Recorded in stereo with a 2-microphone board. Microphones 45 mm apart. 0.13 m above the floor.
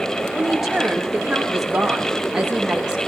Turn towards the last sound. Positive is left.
turn(degrees=-20)  # may be behind; listen again after turning